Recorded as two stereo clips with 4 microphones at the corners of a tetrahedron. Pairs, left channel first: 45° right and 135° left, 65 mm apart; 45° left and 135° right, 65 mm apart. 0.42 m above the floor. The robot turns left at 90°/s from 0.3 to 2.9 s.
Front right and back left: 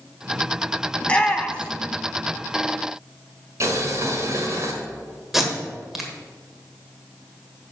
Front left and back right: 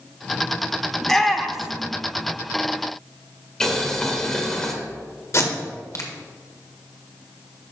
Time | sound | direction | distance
1.0 | a shout | 20° right | 0.8 m
3.6 | boiling | 125° left | 1.6 m
5.3 | tape being pulled | 50° left | 1.4 m